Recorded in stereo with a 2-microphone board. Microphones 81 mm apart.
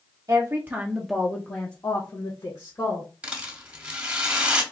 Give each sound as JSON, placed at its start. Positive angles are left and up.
{"t": 0.3, "sound": "a woman speaking", "side_deg": -40, "distance_m": 0.8}
{"t": 3.2, "sound": "a rattle", "side_deg": -15, "distance_m": 1.0}